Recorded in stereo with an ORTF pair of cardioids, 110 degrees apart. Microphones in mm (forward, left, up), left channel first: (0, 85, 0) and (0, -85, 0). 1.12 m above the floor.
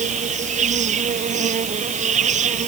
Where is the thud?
No thud in this recording.